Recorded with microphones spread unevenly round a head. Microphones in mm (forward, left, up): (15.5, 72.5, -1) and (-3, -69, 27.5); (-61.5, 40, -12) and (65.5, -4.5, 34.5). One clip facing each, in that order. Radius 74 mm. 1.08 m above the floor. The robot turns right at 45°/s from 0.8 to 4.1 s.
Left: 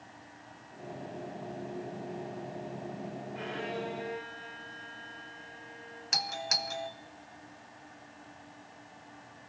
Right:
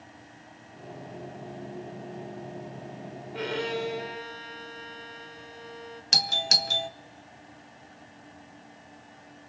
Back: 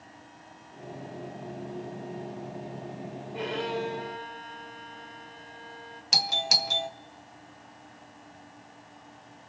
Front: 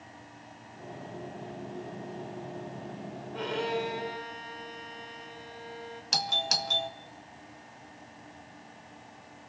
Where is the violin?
120° right, 2.5 m; by 6.0 s 85° right, 2.5 m.